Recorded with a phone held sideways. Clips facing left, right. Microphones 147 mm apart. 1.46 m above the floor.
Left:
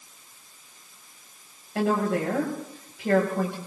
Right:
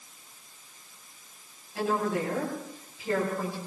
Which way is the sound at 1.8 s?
75° left (ahead or behind).